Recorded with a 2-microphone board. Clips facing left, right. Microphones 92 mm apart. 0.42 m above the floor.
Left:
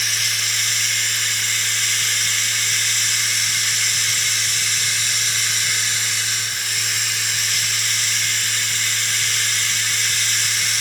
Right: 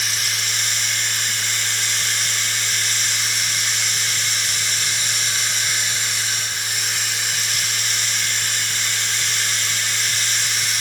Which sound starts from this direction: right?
Running water, at 0.0 s.